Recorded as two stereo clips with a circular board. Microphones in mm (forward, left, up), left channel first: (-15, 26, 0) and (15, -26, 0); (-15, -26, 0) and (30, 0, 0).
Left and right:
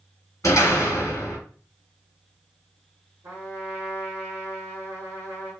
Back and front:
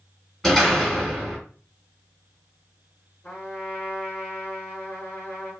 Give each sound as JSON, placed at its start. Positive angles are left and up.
{"t": 0.4, "sound": "a door slam", "azimuth_deg": 125, "distance_m": 1.3}
{"t": 3.2, "sound": "a trumpet", "azimuth_deg": -95, "distance_m": 1.3}